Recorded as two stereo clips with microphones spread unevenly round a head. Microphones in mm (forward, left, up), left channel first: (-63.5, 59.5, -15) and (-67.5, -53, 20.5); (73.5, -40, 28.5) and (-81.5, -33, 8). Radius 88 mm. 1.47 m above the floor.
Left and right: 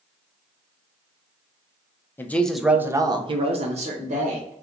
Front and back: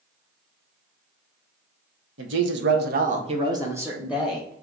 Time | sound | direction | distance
2.2 | a woman speaking | 165° left | 1.0 m